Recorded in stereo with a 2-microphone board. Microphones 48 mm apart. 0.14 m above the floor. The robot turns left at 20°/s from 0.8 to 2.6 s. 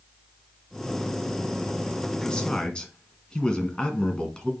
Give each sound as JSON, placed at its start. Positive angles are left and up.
{"t": 2.2, "sound": "a man speaking", "side_deg": 15, "distance_m": 1.7}